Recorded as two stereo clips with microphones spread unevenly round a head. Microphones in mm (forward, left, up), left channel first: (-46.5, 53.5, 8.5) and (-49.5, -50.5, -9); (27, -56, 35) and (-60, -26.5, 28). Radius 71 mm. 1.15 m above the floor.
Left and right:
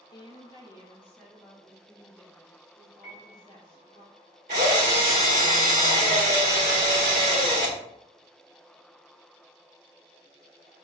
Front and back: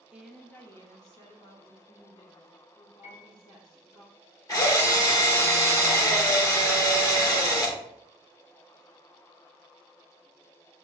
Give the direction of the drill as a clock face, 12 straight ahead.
2 o'clock.